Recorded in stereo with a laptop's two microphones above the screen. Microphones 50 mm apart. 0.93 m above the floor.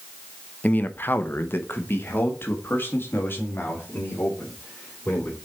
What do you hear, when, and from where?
0.6 s a man speaking: 30° left (ahead or behind), 0.6 m; by 5.4 s 40° left (ahead or behind), 3.5 m